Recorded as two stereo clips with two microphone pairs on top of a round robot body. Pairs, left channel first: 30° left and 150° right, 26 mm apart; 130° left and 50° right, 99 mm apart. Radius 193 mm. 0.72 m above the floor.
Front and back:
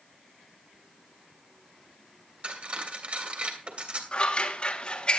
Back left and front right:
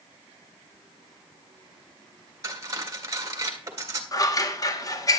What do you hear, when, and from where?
2.4 s cutlery clinking: 110° right, 2 m
4.1 s scissors: 80° left, 1.9 m